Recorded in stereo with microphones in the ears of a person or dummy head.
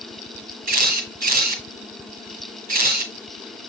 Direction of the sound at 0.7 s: 45° right (ahead or behind).